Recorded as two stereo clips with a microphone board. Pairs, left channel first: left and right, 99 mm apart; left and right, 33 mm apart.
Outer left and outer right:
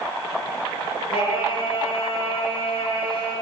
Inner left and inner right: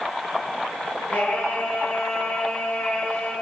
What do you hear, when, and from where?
1.1 s singing: 80° left, 7.5 m